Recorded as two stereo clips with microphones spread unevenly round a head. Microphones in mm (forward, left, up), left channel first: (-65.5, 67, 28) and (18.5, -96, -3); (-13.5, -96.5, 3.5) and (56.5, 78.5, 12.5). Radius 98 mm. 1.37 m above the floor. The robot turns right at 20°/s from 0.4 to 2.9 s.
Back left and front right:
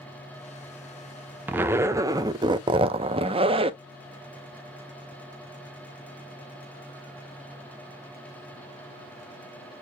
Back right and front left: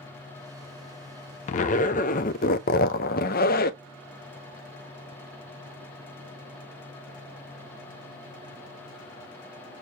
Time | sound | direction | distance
1.5 | a zipper | 150° right | 0.6 m